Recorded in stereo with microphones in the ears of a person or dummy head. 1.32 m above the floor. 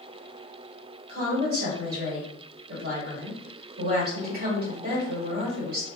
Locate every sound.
1.1 s a woman speaking: 50° right (ahead or behind), 1.6 m